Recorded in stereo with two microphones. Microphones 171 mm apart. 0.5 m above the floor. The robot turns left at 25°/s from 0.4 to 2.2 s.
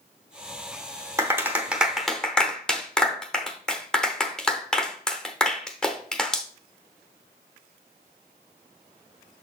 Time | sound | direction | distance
1.2 | a clap | 20° right (ahead or behind) | 0.8 m